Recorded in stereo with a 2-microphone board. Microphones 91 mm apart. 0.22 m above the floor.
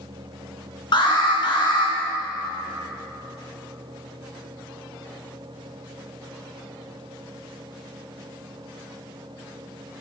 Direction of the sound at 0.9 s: 60° left (ahead or behind).